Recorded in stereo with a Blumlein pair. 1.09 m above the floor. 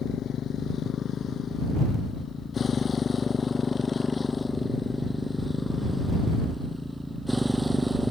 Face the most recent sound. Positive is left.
turn(degrees=-5)